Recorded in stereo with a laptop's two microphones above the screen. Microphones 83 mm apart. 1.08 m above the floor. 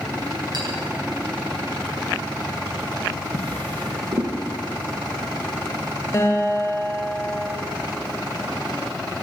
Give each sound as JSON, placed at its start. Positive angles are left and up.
{"t": 0.5, "sound": "a clink", "side_deg": -55, "distance_m": 9.5}
{"t": 3.3, "sound": "a drawer", "side_deg": -85, "distance_m": 5.0}
{"t": 6.1, "sound": "a guitar", "side_deg": 30, "distance_m": 9.0}